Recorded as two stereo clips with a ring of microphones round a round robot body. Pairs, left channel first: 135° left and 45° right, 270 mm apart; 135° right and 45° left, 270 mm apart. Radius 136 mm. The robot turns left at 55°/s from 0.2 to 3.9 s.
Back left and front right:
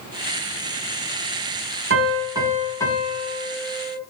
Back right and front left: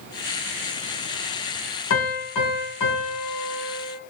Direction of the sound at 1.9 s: 95° right.